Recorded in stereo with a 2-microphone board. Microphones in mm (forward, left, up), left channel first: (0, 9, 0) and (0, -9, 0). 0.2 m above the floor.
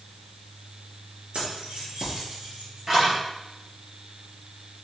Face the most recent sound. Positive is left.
turn(degrees=-20)  # may be behind; listen again after turning